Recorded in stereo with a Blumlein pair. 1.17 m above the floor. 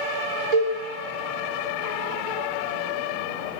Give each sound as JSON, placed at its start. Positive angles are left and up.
{"t": 0.5, "sound": "a cowbell", "azimuth_deg": -30, "distance_m": 0.8}